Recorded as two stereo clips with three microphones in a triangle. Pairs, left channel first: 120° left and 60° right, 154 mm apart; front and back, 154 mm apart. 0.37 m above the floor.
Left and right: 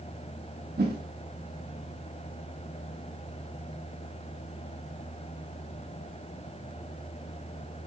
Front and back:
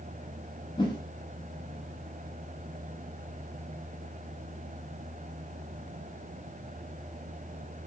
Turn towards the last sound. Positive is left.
turn(degrees=-60)